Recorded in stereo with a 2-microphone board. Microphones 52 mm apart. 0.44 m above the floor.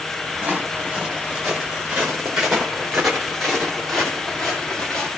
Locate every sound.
0.4 s footsteps: 20° right (ahead or behind), 5 m; by 5.1 s 10° left (ahead or behind), 3.5 m